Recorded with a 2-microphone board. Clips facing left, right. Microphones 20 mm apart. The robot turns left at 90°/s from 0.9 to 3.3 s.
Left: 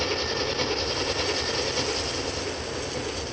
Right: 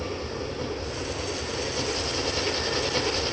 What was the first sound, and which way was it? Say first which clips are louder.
An engine running: left 6 dB; 105° left.